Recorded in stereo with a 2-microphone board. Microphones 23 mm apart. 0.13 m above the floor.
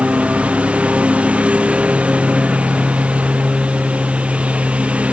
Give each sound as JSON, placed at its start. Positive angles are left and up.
{"t": 0.0, "sound": "a lawn mower", "side_deg": -65}